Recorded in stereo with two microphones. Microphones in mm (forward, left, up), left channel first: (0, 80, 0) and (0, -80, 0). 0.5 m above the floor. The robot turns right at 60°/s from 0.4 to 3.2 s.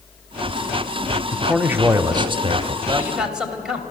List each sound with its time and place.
1.3 s a man speaking: 175° left, 0.8 m; by 2.8 s 95° right, 0.8 m
2.9 s a man speaking: 25° right (ahead or behind), 2 m; by 3.8 s 5° right (ahead or behind), 2 m